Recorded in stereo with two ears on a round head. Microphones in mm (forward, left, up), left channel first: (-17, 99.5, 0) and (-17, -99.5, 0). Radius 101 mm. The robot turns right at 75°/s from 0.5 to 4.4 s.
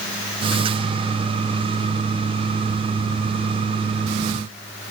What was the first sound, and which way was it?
Only background noise.